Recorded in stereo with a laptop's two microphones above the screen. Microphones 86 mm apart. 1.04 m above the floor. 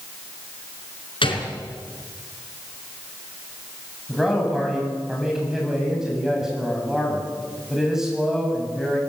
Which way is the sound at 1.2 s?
80° left.